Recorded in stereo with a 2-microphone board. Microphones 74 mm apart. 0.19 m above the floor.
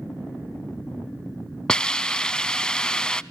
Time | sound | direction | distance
1.7 | a hiss | 10° left (ahead or behind) | 0.5 m